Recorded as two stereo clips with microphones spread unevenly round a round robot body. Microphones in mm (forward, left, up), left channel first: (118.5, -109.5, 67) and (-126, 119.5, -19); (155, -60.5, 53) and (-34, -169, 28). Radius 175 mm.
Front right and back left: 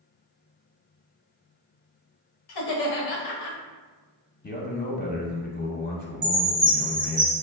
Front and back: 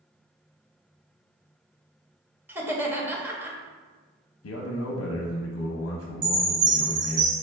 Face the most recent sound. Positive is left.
turn(degrees=-155)